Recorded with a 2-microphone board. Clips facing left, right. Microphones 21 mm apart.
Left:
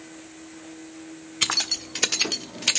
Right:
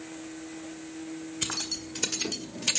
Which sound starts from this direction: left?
Keys jangling, at 1.4 s.